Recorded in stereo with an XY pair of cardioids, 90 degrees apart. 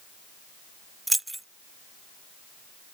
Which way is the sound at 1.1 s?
10° right.